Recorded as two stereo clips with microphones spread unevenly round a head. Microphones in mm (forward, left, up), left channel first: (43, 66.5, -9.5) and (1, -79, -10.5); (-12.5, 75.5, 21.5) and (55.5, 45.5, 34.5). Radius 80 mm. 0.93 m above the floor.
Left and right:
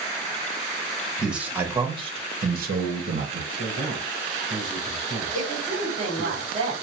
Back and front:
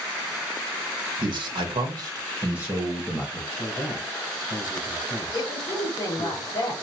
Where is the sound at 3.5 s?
175° right, 3 m.